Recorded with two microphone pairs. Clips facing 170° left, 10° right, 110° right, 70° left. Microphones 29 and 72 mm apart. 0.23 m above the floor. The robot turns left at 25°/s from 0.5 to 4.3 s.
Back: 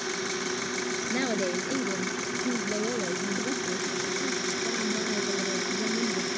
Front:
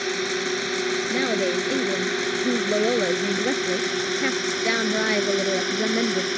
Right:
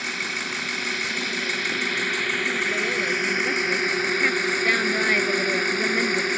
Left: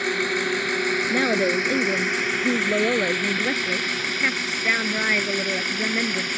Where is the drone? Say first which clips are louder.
Front 6 dB, left 6 dB; 35° left; by 6.4 s 55° right.